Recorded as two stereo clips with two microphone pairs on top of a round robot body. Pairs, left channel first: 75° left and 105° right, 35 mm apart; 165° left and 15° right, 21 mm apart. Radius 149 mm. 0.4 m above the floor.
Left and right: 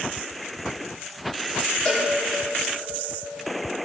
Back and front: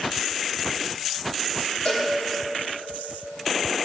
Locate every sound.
1.9 s a cowbell: 140° left, 3 m